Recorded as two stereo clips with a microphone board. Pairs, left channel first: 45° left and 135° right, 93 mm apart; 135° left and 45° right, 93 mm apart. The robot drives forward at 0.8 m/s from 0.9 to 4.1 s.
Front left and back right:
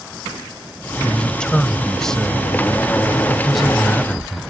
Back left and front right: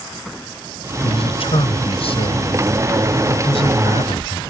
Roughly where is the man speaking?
Behind left.